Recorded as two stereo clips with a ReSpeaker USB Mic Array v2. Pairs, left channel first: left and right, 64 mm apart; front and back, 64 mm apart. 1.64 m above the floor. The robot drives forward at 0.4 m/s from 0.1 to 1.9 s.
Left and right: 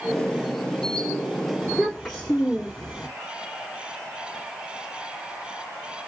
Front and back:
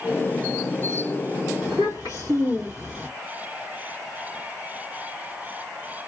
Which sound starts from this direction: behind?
A child speaking, at 1.6 s.